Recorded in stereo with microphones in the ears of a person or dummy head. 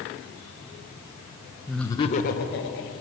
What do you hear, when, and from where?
1.7 s laughter: 5° right (ahead or behind), 0.5 m; by 2.9 s 65° left (ahead or behind), 1.1 m